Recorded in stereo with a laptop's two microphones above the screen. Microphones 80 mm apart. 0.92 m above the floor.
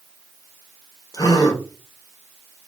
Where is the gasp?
50° left (ahead or behind), 0.9 m.